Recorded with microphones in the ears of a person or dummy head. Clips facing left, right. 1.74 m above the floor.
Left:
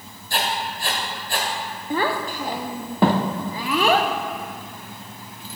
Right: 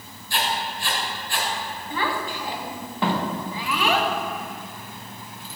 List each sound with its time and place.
0.3 s writing: 40° left (ahead or behind), 2 m
1.9 s a child speaking: 40° left (ahead or behind), 0.8 m